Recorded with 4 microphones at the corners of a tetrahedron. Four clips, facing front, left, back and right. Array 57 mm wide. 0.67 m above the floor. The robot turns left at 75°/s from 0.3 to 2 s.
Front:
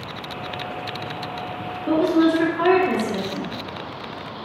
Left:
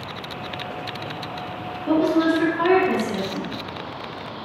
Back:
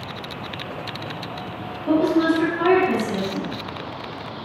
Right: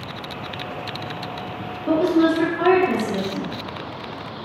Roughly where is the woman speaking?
Ahead.